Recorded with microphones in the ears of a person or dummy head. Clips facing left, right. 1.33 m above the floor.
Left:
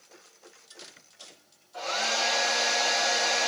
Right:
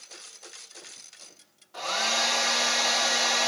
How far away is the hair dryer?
About 1.9 m.